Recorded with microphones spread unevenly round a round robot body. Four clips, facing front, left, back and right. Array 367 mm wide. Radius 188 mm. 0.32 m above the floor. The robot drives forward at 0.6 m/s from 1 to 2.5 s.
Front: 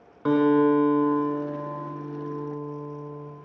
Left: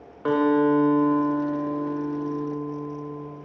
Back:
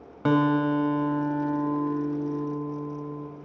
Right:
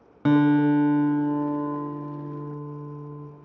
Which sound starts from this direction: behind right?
A guitar, at 0.2 s.